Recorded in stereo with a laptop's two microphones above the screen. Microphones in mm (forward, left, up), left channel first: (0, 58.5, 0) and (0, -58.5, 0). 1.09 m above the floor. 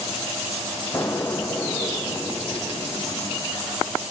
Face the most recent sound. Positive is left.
turn(degrees=20)  # may be behind; listen again after turning